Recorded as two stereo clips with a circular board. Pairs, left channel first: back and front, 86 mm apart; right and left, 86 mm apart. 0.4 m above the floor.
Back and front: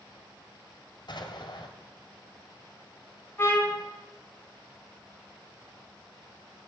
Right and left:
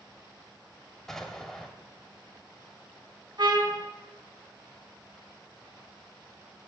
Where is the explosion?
175° right, 2.5 m.